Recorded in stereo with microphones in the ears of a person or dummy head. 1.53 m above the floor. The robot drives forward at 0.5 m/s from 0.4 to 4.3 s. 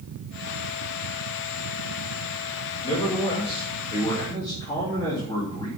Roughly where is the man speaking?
Left.